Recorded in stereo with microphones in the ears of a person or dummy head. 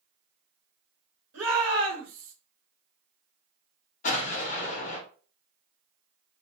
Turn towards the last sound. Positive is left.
turn(degrees=45)  # may be behind; listen again after turning